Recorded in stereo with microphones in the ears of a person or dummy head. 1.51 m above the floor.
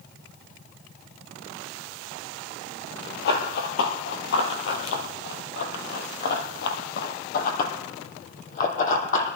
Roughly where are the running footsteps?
Left.